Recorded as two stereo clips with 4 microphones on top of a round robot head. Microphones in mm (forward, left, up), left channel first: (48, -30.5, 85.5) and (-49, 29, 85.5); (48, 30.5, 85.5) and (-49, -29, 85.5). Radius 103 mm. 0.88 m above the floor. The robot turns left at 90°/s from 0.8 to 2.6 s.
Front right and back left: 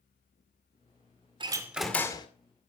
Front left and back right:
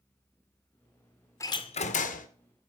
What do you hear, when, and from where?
1.4 s a door slam: 100° left, 2.0 m; by 2.3 s 20° left, 2.0 m